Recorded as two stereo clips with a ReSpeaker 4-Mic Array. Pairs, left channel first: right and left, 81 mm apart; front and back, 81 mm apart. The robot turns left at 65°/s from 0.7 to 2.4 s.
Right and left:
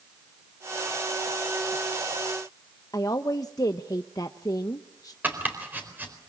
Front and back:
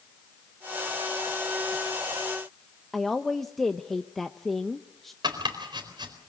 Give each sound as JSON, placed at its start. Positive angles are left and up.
{"t": 2.9, "sound": "a woman speaking", "azimuth_deg": -85, "distance_m": 0.8}
{"t": 5.2, "sound": "chopping", "azimuth_deg": 155, "distance_m": 4.0}